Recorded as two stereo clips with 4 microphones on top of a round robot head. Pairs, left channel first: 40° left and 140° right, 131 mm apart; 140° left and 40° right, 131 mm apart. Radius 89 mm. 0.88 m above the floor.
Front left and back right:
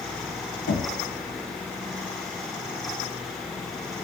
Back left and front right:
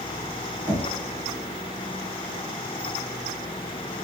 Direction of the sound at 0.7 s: 40° left.